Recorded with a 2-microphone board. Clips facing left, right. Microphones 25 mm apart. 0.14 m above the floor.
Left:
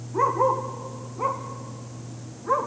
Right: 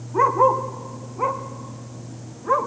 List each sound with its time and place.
0.1 s a dog barking: 25° right (ahead or behind), 2.5 m; by 2.7 s 15° right (ahead or behind), 4 m